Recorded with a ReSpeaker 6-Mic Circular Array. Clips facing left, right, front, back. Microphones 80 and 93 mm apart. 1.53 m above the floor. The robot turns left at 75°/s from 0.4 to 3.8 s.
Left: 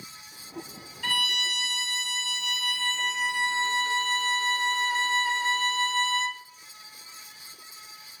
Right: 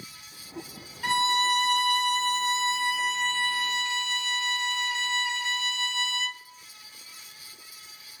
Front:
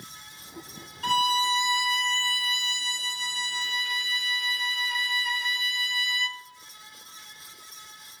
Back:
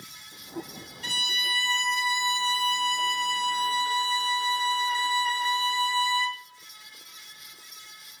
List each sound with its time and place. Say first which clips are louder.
1.0 s a violin: right 7 dB, front 11 dB; 20° right, 0.6 m; by 6.4 s 130° left, 0.6 m